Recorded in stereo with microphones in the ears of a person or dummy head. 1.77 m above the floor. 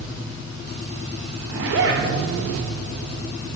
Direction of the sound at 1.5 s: 75° right (ahead or behind).